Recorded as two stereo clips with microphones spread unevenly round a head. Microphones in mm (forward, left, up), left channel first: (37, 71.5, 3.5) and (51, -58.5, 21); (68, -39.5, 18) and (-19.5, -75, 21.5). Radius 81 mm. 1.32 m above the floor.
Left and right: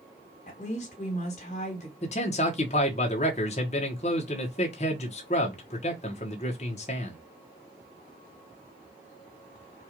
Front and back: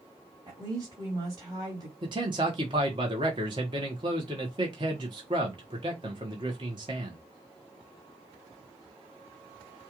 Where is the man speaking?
145° left, 1.1 m.